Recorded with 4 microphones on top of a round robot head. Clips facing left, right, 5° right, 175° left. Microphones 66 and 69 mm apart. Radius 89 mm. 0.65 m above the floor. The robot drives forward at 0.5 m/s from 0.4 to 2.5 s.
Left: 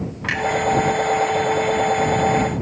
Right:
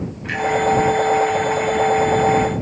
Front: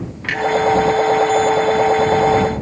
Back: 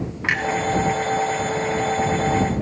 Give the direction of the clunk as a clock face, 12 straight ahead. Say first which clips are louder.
Left 1 dB, front 1 dB; 8 o'clock.